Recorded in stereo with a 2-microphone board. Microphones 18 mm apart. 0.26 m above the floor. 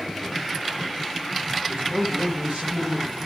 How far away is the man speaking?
About 9 m.